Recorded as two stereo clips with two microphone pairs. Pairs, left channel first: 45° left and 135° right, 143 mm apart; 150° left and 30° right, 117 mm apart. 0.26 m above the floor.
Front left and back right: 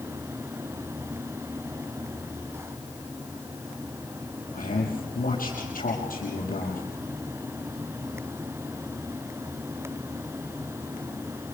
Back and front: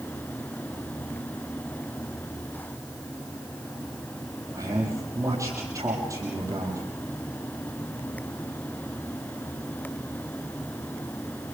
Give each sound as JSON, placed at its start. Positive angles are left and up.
{"t": 4.5, "sound": "a man speaking", "azimuth_deg": 35, "distance_m": 6.5}